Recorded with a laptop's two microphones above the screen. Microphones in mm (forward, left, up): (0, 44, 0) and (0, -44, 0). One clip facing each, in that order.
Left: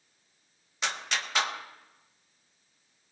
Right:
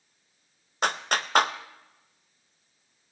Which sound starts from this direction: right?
A clap, at 0.8 s.